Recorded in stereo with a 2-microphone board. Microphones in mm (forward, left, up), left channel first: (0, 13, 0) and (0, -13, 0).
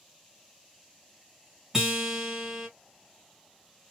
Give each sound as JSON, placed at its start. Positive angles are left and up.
{"t": 1.7, "sound": "a guitar", "side_deg": -15, "distance_m": 1.5}